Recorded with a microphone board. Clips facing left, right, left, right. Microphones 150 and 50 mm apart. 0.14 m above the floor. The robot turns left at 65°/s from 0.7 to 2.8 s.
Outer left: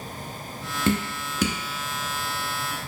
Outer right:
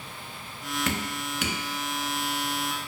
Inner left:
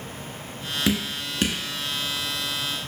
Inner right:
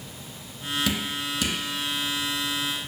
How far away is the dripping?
About 0.9 m.